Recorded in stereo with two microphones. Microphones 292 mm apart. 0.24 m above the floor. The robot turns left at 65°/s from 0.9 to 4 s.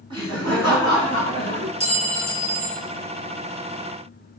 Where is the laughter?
20° right, 2.0 m; by 1.7 s 75° right, 2.0 m.